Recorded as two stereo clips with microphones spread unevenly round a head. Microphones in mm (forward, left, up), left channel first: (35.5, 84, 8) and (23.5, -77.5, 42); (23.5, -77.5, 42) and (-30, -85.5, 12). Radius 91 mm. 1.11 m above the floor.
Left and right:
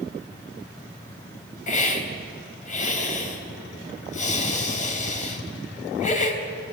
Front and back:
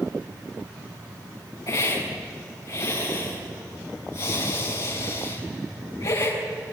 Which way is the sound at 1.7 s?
40° left.